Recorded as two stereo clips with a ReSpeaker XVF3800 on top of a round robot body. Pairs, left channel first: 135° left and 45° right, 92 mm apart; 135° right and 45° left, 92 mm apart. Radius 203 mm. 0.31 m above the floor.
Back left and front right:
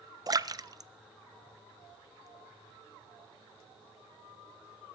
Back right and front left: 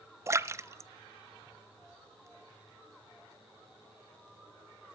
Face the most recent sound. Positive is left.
turn(degrees=-10)